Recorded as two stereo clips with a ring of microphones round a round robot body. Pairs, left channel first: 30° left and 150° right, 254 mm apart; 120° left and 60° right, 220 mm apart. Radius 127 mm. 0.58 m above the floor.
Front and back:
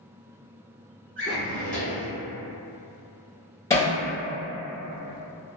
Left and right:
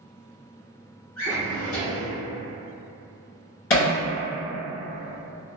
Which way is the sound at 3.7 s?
110° left.